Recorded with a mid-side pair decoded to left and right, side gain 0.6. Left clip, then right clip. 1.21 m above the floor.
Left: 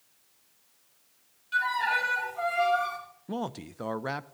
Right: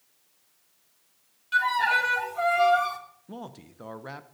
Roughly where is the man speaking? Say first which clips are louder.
Left 8 dB; ahead left.